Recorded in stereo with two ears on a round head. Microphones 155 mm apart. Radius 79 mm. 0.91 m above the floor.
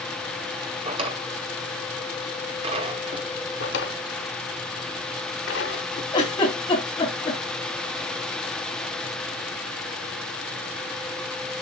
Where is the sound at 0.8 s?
35° right (ahead or behind), 1.9 m.